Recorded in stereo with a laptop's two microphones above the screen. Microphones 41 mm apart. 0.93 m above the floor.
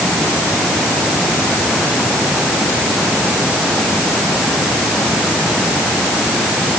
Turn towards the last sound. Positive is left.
No sound to turn to.